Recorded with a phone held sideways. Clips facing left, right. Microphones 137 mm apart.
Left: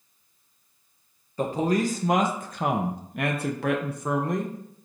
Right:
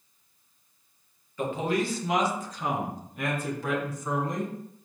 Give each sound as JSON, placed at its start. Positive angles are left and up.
{"t": 1.4, "sound": "a man speaking", "side_deg": 35, "distance_m": 1.5}